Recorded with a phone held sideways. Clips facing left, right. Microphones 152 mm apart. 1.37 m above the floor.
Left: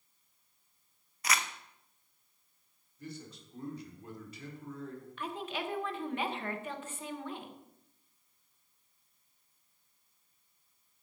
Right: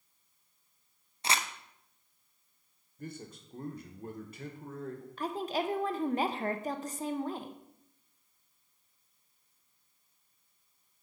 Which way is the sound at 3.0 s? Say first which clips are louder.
Right 2 dB; 50° right (ahead or behind).